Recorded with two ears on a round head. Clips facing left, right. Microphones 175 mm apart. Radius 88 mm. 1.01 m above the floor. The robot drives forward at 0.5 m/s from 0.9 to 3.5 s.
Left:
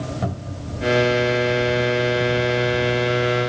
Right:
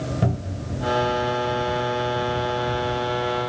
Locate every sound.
0.2 s a cupboard door: 30° right (ahead or behind), 1.6 m